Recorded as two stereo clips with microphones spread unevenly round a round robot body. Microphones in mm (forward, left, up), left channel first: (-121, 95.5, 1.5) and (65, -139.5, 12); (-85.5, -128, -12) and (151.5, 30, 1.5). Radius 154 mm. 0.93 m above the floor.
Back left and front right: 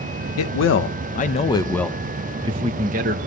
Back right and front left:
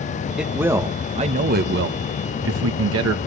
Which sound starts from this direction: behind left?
A man speaking, at 0.4 s.